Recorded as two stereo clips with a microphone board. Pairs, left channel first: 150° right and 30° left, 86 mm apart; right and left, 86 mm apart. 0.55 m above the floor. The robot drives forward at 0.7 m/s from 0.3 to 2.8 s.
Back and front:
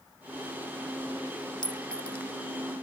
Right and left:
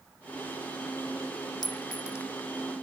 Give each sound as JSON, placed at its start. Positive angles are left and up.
{"t": 1.6, "sound": "a clink", "azimuth_deg": -125}